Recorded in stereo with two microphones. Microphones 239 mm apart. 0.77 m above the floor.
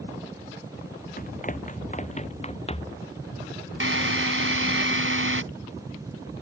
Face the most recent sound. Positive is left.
turn(degrees=-60)  # may be behind; listen again after turning